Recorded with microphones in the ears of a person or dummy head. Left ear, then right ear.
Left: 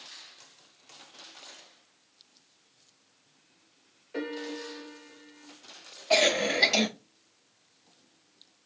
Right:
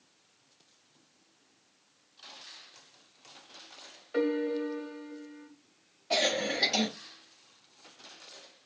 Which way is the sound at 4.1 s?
30° right (ahead or behind).